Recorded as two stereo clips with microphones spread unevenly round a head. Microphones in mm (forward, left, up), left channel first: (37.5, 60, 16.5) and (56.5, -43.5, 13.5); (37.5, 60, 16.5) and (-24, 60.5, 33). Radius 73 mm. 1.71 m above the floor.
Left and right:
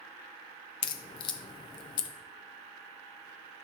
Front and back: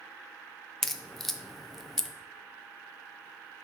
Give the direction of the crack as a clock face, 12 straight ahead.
9 o'clock.